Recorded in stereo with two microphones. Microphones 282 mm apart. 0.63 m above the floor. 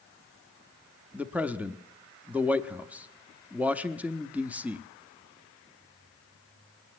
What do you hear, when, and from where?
1.1 s a man speaking: 5° right (ahead or behind), 0.7 m